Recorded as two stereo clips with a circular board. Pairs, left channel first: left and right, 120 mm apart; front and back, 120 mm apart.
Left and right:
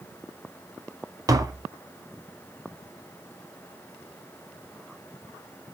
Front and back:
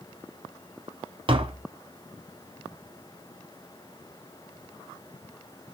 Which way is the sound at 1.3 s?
145° right.